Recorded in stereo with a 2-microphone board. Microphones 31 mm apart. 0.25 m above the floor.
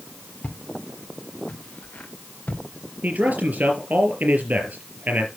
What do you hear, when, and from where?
0.4 s footsteps: 65° left (ahead or behind), 2.5 m; by 2.6 s 75° left (ahead or behind), 3 m
3.0 s a man speaking: 65° right (ahead or behind), 4.5 m